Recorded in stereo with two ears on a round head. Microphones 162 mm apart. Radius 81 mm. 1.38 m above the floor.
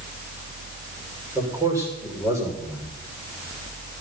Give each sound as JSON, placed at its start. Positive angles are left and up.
{"t": 1.4, "sound": "a man speaking", "side_deg": -15, "distance_m": 6.5}